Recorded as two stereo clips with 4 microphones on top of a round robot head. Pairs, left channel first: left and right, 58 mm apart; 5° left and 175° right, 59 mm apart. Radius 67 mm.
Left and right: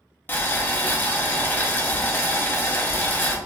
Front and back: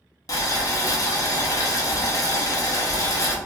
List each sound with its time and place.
0.3 s boiling: 30° left, 0.7 m